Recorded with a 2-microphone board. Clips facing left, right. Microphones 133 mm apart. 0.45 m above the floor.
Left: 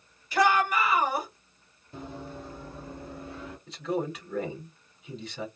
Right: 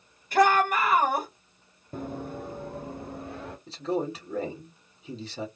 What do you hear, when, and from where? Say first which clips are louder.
0.3 s a shout: right 2 dB; 50° right (ahead or behind), 1.7 m
1.9 s running footsteps: right 5 dB; 45° right (ahead or behind), 0.7 m; by 3.6 s 50° right (ahead or behind), 1.7 m
3.7 s a man speaking: right 1 dB; 30° right (ahead or behind), 1.6 m